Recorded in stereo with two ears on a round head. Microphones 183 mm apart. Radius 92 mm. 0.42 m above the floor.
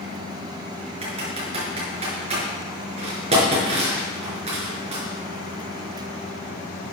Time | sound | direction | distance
1.0 | typing on a keyboard | 35° right (ahead or behind) | 5.5 m